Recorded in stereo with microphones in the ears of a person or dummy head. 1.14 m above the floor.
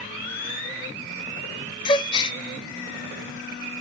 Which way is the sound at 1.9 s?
25° left (ahead or behind).